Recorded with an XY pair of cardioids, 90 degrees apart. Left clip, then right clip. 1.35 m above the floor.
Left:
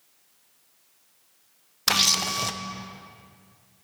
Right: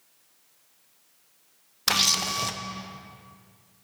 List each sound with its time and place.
1.9 s a camera shutter: 10° left, 0.5 m